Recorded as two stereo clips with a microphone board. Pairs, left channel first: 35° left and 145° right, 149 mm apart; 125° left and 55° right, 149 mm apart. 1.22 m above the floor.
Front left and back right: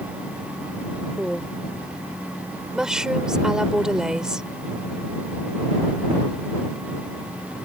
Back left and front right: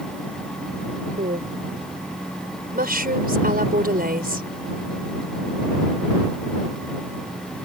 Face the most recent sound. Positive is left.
turn(degrees=-60)